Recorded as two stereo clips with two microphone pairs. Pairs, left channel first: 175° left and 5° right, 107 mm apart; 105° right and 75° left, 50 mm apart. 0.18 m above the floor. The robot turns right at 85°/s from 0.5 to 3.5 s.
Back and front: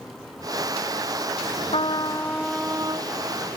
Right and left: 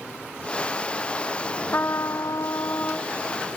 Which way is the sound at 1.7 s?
160° right.